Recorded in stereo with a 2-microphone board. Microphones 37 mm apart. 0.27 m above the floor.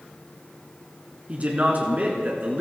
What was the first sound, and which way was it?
A man speaking, 35° right (ahead or behind).